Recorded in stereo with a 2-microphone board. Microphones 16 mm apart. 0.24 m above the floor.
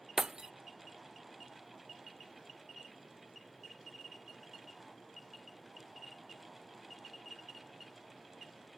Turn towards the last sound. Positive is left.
turn(degrees=-45)  # may be behind; listen again after turning